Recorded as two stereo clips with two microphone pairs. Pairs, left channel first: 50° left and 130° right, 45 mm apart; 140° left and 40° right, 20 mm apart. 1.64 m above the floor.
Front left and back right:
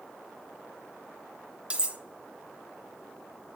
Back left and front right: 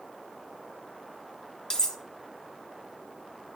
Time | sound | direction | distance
1.7 | cutlery clinking | straight behind | 0.9 m